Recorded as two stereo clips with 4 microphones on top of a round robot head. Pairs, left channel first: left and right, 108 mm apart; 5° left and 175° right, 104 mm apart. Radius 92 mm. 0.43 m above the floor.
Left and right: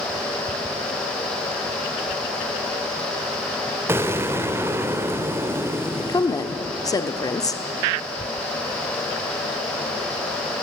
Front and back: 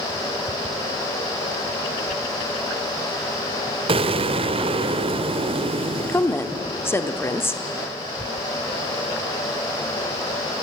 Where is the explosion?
155° right, 1.1 m.